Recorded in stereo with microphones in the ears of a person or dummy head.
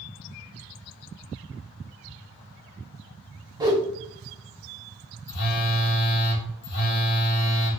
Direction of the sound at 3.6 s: 20° right (ahead or behind).